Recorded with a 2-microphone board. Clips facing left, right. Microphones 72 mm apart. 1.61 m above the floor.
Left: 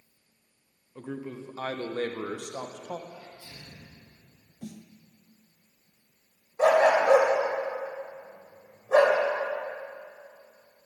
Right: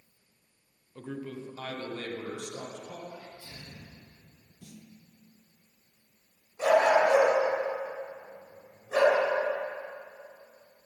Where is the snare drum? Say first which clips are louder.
Left 8 dB; 55° left (ahead or behind), 0.5 m.